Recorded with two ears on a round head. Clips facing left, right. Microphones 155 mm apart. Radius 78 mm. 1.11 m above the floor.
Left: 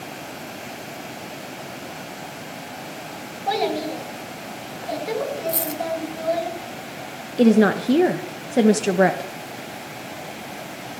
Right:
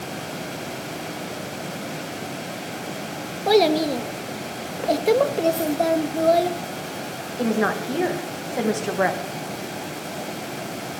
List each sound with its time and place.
3.5 s a child speaking: 55° right (ahead or behind), 1.1 m
5.5 s a dropped coin: 65° left (ahead or behind), 1.9 m
7.4 s a woman speaking: 35° left (ahead or behind), 1.0 m